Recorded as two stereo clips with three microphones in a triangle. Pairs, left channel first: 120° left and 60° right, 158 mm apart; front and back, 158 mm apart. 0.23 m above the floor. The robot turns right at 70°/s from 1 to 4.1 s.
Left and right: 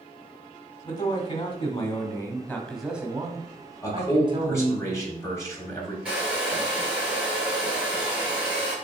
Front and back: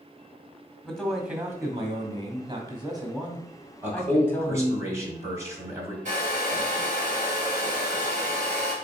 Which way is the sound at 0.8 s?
85° left.